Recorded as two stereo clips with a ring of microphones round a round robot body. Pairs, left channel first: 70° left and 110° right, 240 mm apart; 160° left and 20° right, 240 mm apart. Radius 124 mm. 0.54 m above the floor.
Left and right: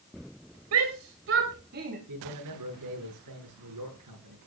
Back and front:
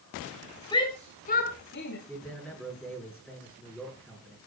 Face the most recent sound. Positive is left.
turn(degrees=-110)